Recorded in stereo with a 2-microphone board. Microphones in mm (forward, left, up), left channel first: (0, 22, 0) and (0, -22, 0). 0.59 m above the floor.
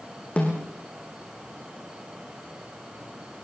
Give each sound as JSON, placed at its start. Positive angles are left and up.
{"t": 0.4, "sound": "a snare drum", "side_deg": 30, "distance_m": 6.0}